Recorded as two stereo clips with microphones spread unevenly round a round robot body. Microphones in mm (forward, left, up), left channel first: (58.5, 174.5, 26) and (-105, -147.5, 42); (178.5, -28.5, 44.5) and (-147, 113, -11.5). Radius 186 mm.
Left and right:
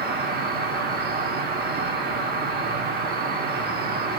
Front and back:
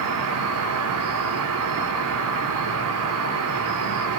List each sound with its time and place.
0.0 s an insect: straight behind, 1.9 m